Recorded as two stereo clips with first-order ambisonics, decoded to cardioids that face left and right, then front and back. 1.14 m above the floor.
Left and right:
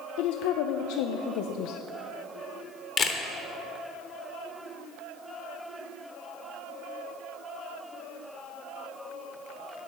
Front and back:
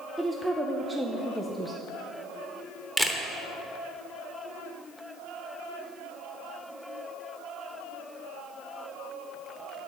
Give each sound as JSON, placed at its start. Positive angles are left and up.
{"t": 0.2, "sound": "a woman speaking", "azimuth_deg": 90, "distance_m": 0.5}
{"t": 3.0, "sound": "a camera shutter", "azimuth_deg": 90, "distance_m": 0.8}